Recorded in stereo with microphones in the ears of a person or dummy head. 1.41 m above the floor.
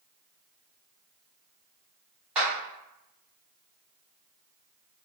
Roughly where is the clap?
Centre.